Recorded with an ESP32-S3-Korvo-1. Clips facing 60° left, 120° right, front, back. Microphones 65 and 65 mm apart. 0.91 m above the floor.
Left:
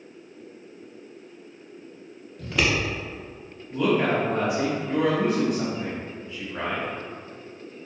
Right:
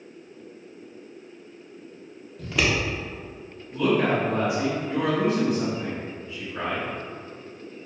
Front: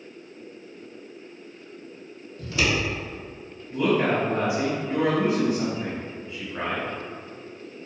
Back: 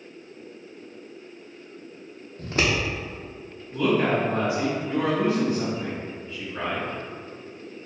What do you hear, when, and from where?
2.4 s scissors: 150° left, 0.5 m
3.7 s a woman speaking: 55° left, 0.9 m